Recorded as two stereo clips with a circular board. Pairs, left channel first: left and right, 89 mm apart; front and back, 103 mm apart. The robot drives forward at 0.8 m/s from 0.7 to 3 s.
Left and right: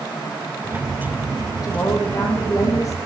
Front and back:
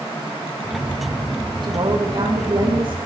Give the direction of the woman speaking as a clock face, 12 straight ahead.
7 o'clock.